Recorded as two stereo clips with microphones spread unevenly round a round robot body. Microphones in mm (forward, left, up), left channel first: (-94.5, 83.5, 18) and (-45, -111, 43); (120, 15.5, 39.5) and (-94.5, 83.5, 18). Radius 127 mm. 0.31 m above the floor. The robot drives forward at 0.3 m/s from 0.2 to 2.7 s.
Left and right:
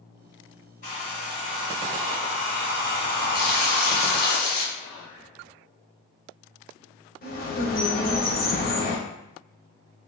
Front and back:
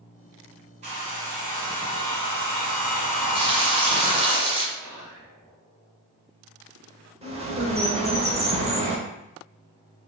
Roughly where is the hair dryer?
Behind left.